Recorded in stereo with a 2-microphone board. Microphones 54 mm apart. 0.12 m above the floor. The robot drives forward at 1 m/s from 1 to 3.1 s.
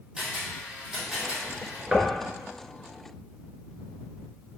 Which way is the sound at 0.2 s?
15° right (ahead or behind).